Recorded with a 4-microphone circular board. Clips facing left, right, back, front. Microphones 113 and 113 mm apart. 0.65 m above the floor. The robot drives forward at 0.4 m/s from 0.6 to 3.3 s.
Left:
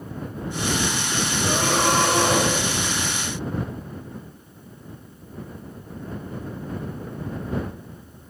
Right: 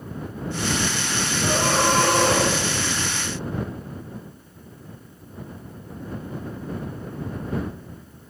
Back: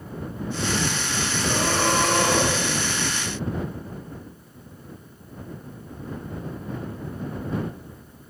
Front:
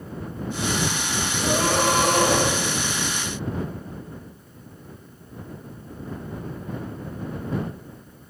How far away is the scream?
About 4.5 m.